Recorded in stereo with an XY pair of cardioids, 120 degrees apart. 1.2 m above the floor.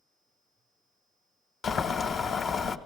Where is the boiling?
45° left, 0.8 m.